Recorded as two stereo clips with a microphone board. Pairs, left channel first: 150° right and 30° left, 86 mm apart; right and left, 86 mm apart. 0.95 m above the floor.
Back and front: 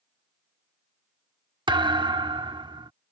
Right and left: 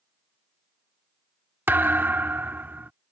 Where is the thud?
25° left.